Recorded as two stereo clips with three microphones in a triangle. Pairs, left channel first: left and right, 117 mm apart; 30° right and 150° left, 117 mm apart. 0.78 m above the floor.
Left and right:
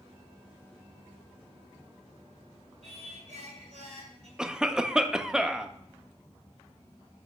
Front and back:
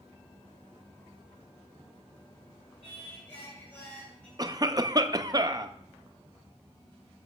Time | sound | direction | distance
2.8 | singing | 105° right | 3 m
4.4 | a cough | 170° right | 0.5 m